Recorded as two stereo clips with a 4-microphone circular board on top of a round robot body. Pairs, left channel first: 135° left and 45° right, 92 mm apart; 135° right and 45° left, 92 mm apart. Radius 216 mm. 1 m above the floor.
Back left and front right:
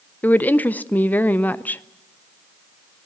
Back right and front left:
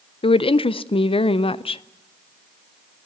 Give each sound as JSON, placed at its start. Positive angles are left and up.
{"t": 0.2, "sound": "a woman speaking", "azimuth_deg": -150, "distance_m": 0.7}